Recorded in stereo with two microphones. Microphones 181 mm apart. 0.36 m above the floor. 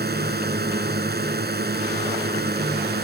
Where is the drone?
60° right (ahead or behind).